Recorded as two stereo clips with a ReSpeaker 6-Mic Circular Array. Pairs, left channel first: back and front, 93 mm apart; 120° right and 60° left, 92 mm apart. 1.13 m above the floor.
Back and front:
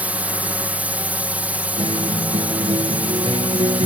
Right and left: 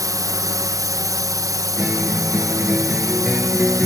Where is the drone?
65° left.